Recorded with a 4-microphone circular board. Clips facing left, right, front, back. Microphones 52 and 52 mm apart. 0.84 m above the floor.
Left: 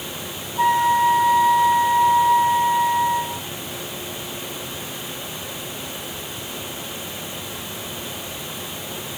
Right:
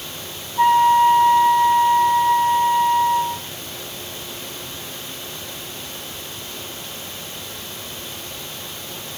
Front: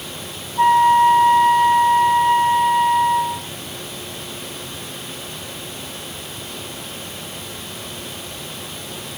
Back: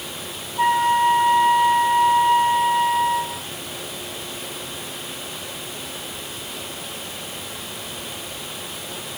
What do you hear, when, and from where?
0.6 s a flute: 25° right, 1.8 m